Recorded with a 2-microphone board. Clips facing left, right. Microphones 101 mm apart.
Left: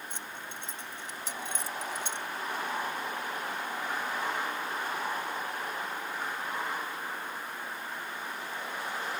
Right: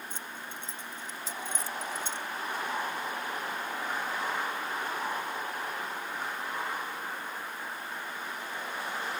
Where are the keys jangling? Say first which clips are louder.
Even; 85° left; by 2.3 s 75° left (ahead or behind).